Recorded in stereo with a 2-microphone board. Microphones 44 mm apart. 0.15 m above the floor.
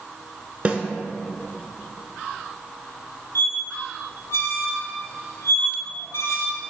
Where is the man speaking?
I don't hear a man speaking.